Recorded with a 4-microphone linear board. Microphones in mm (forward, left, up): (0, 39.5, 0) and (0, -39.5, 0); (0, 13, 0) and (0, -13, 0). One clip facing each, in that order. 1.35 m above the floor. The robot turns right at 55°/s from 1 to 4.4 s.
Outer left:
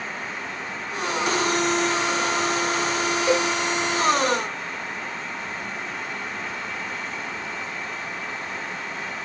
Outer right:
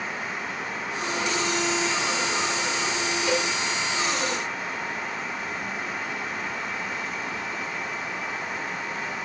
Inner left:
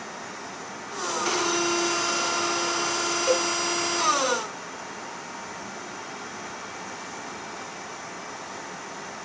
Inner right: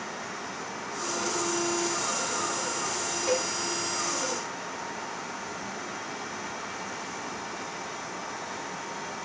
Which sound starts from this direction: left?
A cowbell, at 3.3 s.